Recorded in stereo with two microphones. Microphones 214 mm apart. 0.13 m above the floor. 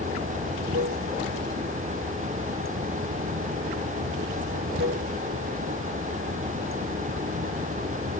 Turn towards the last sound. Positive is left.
turn(degrees=-75)  # may be behind; listen again after turning